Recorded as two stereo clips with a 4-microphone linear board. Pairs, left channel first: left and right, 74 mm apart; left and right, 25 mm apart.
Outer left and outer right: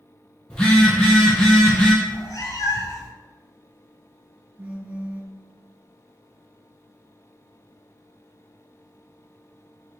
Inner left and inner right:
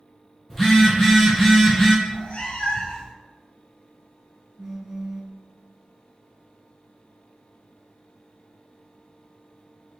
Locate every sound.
0.5 s a phone buzzing: 15° left (ahead or behind), 0.9 m
2.0 s a cat meowing: 55° left (ahead or behind), 0.5 m
4.6 s a phone buzzing: 20° right (ahead or behind), 0.5 m